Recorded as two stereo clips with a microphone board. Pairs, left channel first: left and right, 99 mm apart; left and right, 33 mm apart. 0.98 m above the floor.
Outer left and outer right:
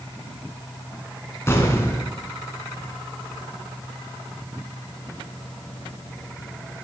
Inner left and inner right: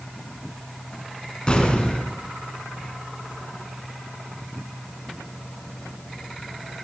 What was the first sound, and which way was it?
An explosion, 25° left (ahead or behind).